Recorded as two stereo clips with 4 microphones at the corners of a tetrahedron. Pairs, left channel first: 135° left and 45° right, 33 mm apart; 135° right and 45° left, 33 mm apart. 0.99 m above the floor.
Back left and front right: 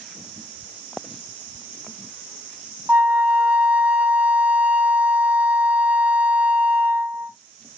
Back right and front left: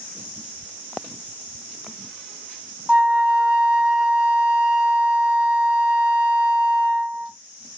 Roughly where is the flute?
Ahead.